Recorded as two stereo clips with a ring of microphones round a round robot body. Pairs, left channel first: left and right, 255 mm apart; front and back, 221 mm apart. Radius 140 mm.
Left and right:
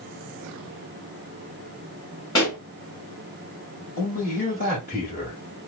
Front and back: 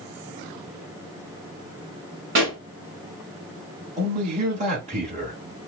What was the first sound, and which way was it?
A pop, 165° left.